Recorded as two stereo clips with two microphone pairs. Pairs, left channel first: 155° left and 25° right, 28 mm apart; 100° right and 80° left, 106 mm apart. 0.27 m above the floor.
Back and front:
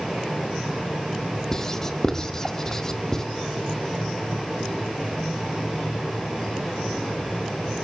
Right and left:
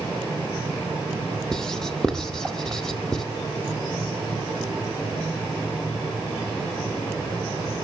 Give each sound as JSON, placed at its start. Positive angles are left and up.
{"t": 1.5, "sound": "writing", "azimuth_deg": 180, "distance_m": 1.4}